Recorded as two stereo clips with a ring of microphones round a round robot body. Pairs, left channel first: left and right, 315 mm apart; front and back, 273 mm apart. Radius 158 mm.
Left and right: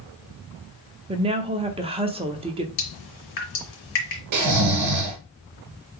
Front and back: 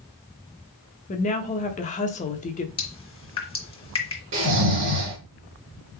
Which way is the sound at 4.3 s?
125° right.